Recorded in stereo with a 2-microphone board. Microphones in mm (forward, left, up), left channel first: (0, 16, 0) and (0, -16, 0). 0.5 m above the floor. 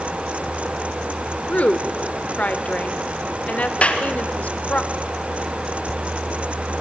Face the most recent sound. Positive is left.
turn(degrees=40)  # may be behind; listen again after turning